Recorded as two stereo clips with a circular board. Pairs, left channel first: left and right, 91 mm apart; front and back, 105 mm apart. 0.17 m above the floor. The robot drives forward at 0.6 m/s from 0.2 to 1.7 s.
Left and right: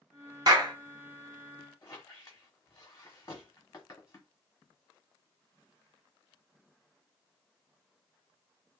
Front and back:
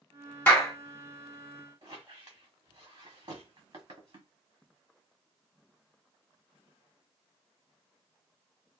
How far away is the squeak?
About 1.3 m.